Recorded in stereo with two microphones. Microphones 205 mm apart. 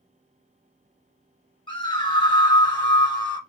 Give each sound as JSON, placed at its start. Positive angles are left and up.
{"t": 1.7, "sound": "a scream", "side_deg": 25, "distance_m": 1.5}